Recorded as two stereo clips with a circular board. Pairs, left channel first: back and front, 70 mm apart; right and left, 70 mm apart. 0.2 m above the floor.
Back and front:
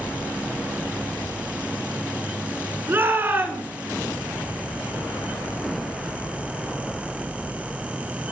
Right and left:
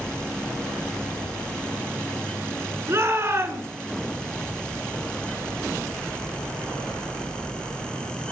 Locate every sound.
2.9 s a shout: 50° left, 2.5 m